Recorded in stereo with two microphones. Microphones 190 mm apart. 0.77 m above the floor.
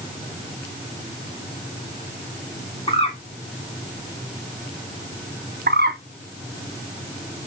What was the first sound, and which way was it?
A bird, 30° left (ahead or behind).